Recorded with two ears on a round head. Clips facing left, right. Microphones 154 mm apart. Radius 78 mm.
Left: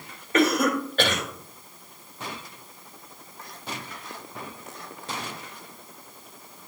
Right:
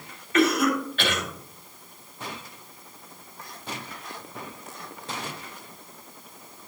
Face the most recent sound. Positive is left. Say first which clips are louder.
# even
turn(degrees=35)  # may be behind; listen again after turning